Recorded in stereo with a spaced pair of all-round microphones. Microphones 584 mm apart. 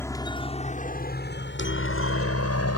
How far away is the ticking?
I don't hear ticking.